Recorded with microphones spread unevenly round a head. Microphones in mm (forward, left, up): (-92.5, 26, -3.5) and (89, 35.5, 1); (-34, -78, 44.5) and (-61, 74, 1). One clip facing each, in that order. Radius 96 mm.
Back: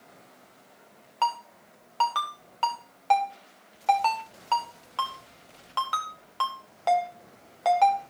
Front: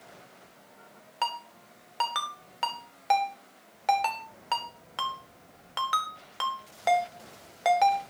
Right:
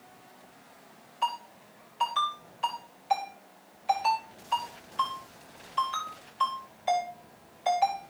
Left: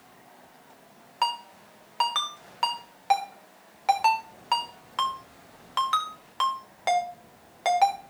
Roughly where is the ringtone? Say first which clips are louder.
Back 5 dB, left 3 dB; left.